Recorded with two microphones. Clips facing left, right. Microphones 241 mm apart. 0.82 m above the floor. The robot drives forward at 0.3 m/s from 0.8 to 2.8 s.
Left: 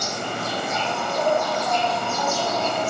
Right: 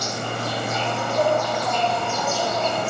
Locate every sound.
0.0 s an insect: 40° right (ahead or behind), 1.1 m; by 2.9 s 60° right (ahead or behind), 0.8 m